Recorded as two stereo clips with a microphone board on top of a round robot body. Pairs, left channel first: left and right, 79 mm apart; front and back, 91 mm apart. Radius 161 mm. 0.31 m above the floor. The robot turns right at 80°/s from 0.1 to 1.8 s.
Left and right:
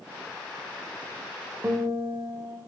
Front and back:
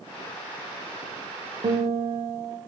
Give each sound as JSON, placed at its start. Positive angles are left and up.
{"t": 1.6, "sound": "a guitar", "azimuth_deg": -150, "distance_m": 0.8}